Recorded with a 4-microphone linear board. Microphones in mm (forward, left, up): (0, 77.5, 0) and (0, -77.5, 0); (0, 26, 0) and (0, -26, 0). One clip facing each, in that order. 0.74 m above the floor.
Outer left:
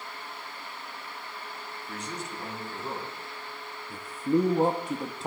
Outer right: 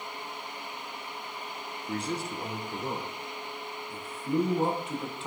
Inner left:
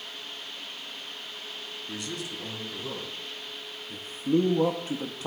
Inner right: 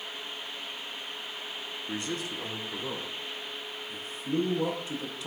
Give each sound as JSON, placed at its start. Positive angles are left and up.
{"t": 1.9, "sound": "a man speaking", "side_deg": -30, "distance_m": 0.7}
{"t": 3.9, "sound": "a man speaking", "side_deg": 40, "distance_m": 0.7}